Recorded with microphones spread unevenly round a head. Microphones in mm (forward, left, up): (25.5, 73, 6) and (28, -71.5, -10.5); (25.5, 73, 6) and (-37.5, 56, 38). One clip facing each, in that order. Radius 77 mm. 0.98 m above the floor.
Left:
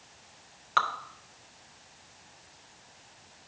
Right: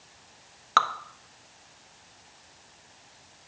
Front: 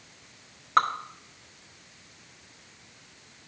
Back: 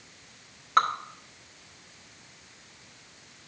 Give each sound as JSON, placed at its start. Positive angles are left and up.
{"t": 0.8, "sound": "dripping", "azimuth_deg": -60, "distance_m": 0.5}